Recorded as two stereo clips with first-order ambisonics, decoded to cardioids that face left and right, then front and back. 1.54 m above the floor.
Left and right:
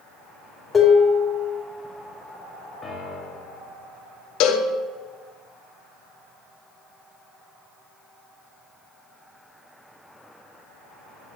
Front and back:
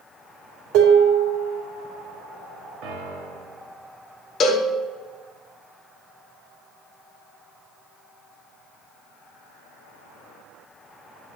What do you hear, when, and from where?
0.7 s dishes clattering: 165° left, 2.5 m
2.8 s a piano: 170° left, 1.4 m
4.4 s a cowbell: 60° left, 1.2 m